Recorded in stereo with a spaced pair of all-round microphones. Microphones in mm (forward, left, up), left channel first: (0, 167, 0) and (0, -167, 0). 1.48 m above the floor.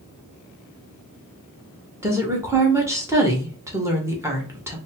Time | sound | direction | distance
2.0 | a woman speaking | 10° right (ahead or behind) | 1.2 m